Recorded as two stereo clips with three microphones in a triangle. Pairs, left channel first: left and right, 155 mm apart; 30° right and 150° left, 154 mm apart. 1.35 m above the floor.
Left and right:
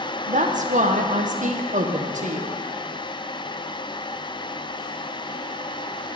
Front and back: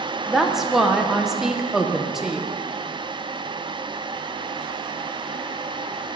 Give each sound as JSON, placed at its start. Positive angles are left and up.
{"t": 0.3, "sound": "a woman speaking", "azimuth_deg": -125, "distance_m": 0.8}